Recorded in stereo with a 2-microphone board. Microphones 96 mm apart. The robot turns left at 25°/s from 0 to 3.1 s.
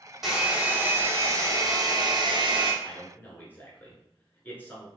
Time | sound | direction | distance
0.2 | a hair dryer | 5° right | 0.9 m
2.8 | a man speaking | 20° left (ahead or behind) | 1.1 m